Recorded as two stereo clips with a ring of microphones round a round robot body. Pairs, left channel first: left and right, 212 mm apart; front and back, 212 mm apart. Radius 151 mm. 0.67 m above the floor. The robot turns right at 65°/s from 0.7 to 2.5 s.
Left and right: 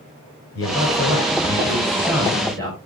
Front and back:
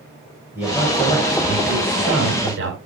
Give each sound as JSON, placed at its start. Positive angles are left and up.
{"t": 0.6, "sound": "a man speaking", "azimuth_deg": 95, "distance_m": 7.0}